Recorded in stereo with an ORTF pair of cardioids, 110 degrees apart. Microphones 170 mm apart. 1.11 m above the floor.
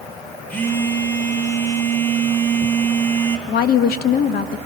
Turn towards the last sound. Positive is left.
turn(degrees=60)